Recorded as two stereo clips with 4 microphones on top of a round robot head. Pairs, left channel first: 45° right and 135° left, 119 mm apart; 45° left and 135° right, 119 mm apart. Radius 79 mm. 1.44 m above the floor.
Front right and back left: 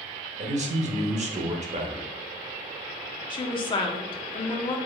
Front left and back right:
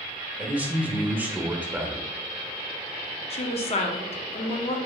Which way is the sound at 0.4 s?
145° left.